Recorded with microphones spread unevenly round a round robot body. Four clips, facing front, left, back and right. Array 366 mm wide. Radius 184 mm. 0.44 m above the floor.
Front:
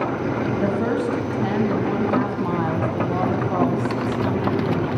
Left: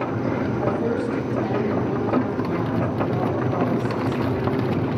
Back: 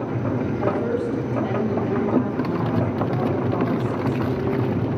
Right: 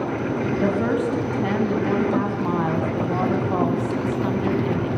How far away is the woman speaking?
About 3.5 m.